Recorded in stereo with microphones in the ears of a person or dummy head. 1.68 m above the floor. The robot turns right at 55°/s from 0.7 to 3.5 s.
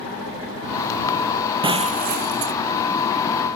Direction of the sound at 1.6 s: 150° right.